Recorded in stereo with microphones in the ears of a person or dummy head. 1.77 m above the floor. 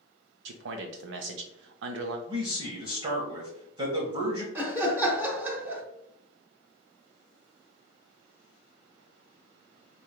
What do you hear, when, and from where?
0.5 s a man speaking: 70° right (ahead or behind), 0.6 m
2.3 s a man speaking: 35° right (ahead or behind), 1.0 m
4.5 s laughter: 10° right (ahead or behind), 0.8 m